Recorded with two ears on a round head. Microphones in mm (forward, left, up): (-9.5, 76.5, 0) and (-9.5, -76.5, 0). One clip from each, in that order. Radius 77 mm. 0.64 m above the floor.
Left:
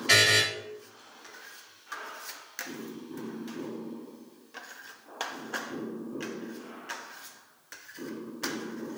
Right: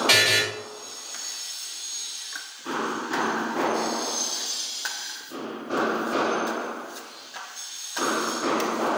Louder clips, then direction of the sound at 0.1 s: Right 1 dB; 40° right (ahead or behind).